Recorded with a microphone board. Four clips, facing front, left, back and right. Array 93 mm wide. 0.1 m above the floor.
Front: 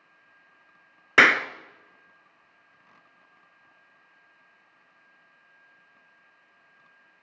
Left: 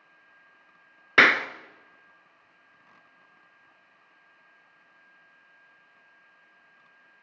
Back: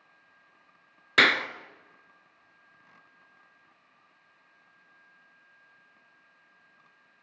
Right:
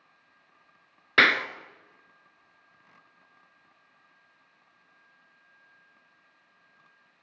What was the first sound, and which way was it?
A clap, 25° left.